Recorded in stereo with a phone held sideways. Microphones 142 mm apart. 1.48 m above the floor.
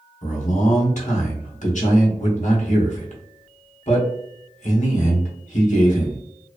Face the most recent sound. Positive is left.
turn(degrees=60)  # may be behind; listen again after turning